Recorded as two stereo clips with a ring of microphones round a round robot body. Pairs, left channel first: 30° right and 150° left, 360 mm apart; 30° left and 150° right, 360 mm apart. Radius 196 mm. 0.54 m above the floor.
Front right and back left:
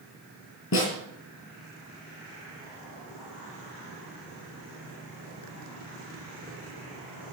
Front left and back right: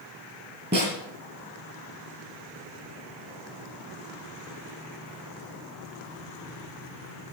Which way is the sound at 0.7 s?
85° right.